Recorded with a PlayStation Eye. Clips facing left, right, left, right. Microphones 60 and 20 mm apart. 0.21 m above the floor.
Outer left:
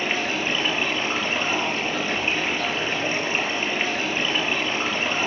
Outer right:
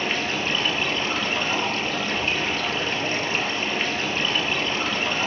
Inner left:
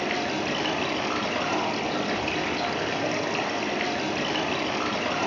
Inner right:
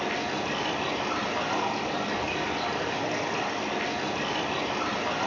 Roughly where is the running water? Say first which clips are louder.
Outer left 1 dB, inner left 2 dB; centre.